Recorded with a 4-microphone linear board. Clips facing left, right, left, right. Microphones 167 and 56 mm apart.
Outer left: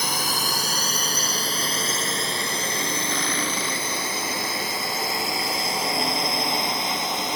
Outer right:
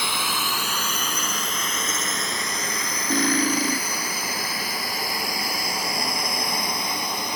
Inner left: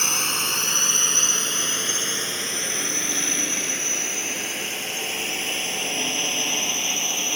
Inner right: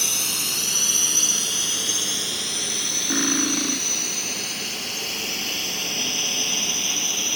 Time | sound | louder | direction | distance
0.0 | a drone | outer left 1 dB, inner left 4 dB | 40° left (ahead or behind) | ?
3.1 | cutlery clinking | outer right 6 dB, inner right 5 dB | 45° right (ahead or behind) | ?